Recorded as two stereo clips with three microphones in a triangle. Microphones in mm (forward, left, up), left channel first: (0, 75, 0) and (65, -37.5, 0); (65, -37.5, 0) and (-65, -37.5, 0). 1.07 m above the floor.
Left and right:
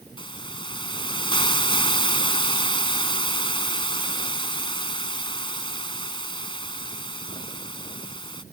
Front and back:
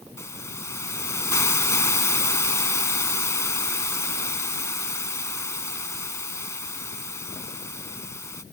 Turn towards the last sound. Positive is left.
turn(degrees=70)